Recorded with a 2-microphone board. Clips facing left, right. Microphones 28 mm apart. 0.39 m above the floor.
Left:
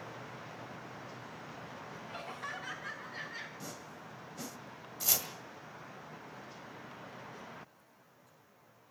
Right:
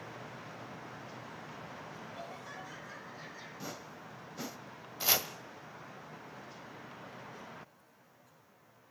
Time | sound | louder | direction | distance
2.1 | laughter | left 3 dB | 70° left (ahead or behind) | 5 m
3.6 | a whoosh | right 2 dB | 20° right (ahead or behind) | 1.0 m
5.0 | chopping | right 4 dB | 30° right (ahead or behind) | 1.5 m